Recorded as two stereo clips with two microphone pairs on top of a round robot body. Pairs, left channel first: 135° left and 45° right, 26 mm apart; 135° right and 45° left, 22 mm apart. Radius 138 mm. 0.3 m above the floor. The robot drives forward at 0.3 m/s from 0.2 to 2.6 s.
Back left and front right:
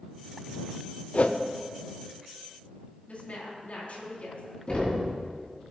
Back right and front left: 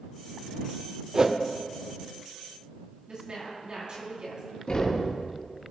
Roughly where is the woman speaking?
Left.